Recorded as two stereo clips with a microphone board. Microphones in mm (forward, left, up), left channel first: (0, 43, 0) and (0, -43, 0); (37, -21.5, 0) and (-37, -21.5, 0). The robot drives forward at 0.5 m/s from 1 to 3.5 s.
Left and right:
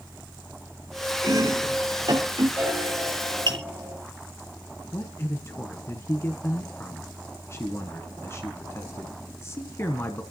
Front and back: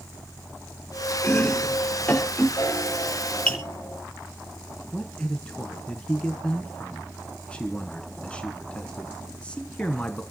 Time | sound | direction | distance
1.2 | chopping | 55° right | 3.5 m
2.6 | a piano | 30° right | 3.5 m
4.9 | a man speaking | 65° left | 1.2 m